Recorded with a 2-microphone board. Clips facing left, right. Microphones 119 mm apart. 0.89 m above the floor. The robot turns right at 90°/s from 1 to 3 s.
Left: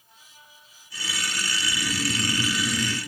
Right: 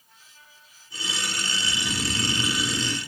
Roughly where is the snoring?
Behind right.